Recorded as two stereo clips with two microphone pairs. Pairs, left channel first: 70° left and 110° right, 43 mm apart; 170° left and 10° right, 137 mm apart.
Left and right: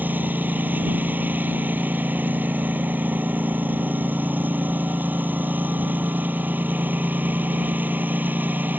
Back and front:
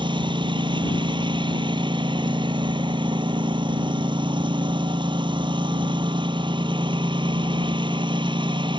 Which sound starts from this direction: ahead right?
A lawn mower, at 0.0 s.